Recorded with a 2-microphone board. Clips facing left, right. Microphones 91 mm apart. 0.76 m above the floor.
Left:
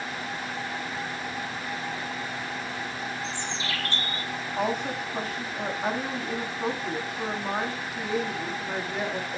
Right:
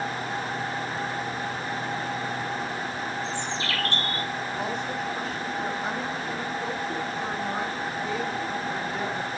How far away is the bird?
About 2.5 m.